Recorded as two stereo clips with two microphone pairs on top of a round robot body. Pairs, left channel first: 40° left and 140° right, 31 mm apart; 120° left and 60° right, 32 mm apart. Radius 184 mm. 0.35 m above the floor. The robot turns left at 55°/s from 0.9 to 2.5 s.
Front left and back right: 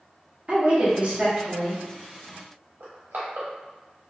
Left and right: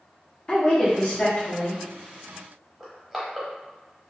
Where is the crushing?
150° right, 0.8 m.